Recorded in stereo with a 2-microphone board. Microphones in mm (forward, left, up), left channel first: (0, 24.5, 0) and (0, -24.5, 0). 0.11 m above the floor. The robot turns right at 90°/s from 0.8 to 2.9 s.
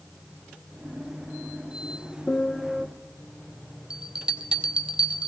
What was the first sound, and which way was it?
A piano, 145° left.